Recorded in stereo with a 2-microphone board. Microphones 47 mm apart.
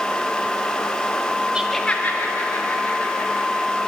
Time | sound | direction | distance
1.6 | laughter | 15° right (ahead or behind) | 0.7 m